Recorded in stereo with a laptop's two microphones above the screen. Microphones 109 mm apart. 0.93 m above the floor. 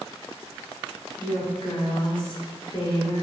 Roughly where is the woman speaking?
Left.